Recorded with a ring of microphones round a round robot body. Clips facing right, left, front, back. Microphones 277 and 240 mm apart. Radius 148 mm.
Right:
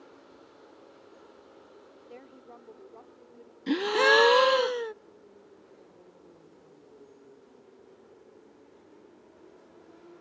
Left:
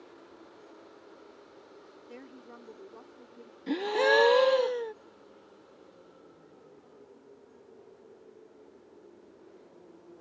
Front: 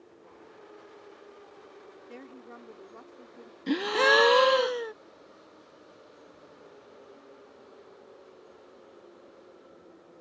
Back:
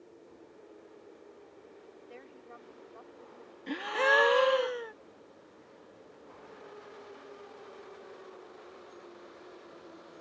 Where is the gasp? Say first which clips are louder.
Right 2 dB, front 6 dB; 25° right.